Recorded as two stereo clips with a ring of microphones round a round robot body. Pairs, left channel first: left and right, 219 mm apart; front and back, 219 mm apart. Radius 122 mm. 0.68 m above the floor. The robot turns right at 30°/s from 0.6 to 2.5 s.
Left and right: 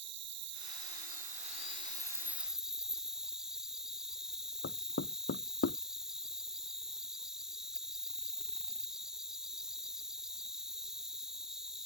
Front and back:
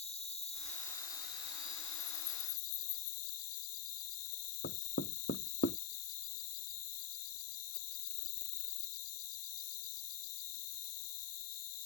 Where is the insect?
60° right; by 11.9 s straight ahead.